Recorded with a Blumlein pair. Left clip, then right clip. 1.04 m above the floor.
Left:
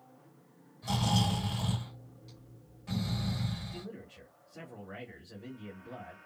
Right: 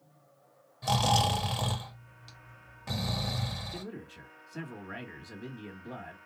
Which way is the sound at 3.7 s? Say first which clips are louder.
Right 3 dB; 30° right.